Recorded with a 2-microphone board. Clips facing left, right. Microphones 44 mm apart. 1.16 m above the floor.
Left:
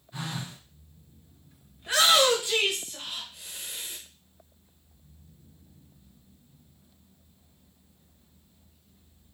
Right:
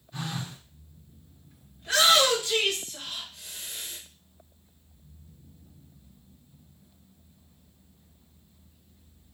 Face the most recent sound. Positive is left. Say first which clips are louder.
# even
turn(degrees=15)  # may be behind; listen again after turning